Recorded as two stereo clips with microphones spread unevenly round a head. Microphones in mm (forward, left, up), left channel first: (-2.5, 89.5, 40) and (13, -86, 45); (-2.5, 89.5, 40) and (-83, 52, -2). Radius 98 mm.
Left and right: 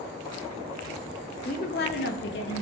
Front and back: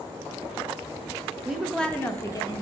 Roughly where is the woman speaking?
Behind left.